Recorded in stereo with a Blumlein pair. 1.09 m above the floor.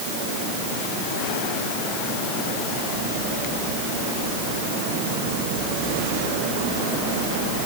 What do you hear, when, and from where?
Only background noise.